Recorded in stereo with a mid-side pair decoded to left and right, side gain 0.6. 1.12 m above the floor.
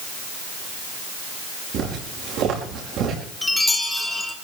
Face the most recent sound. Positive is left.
turn(degrees=10)